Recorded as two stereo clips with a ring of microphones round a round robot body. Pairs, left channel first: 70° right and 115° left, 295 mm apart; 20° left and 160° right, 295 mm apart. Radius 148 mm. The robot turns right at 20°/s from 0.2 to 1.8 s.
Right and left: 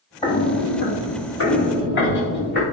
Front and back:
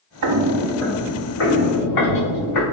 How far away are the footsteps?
About 0.6 m.